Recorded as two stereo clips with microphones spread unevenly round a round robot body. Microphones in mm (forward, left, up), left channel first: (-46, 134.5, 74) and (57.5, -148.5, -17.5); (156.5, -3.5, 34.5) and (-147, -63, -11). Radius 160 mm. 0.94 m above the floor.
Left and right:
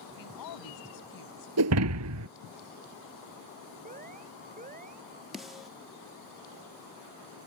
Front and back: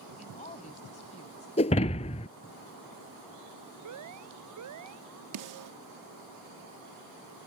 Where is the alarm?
135° right.